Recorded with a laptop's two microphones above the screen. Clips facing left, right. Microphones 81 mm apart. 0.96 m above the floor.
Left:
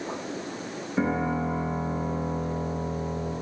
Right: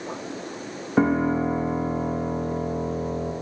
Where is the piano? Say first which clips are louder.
Right 6 dB; 70° right (ahead or behind), 1.5 m.